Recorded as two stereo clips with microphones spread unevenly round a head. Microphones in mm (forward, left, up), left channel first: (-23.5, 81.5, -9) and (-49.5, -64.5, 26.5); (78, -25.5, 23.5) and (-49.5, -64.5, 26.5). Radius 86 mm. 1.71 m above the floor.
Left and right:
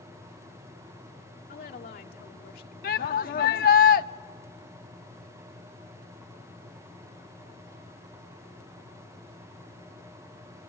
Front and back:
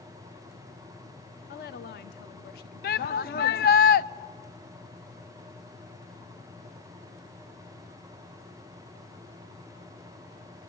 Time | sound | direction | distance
1.5 | a woman speaking | 40° left | 1.4 m
2.8 | a shout | 35° left | 0.7 m